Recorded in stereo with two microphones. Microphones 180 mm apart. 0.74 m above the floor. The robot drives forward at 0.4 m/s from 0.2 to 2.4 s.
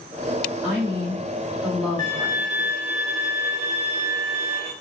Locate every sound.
0.6 s a woman speaking: 5° right (ahead or behind), 2 m
2.0 s a violin: 45° right (ahead or behind), 0.8 m; by 4.7 s 35° right (ahead or behind), 0.9 m